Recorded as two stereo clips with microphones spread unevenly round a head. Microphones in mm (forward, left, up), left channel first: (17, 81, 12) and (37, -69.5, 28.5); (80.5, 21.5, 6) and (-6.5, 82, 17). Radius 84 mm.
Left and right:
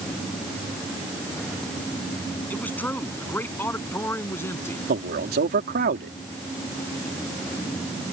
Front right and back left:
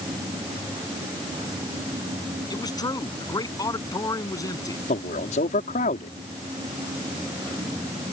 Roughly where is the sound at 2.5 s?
Ahead.